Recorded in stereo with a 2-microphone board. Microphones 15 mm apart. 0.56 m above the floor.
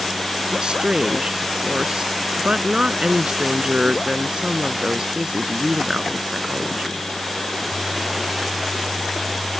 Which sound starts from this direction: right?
A woman speaking, at 0.5 s.